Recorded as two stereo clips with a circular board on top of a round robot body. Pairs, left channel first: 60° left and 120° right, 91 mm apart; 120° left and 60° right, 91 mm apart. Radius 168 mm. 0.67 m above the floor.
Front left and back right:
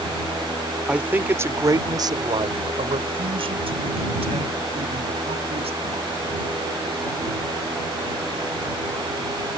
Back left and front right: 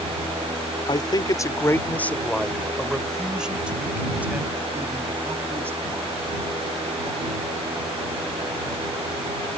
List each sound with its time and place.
0.9 s a man speaking: 160° left; by 6.2 s 125° right